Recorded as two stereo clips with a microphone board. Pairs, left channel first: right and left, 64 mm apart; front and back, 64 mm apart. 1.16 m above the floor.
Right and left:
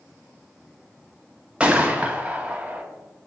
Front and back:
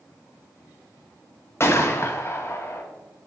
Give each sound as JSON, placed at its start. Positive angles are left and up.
{"t": 1.6, "sound": "a gunshot", "azimuth_deg": 25, "distance_m": 0.8}